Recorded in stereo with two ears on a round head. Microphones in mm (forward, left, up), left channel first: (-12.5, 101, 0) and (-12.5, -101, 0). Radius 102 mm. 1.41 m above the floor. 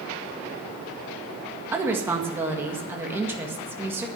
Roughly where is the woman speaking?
Centre.